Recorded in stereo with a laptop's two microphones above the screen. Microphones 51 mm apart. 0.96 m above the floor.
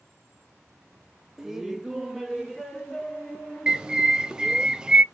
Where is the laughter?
10° right (ahead or behind), 0.6 m; by 4.7 s centre (ahead or behind), 2.0 m.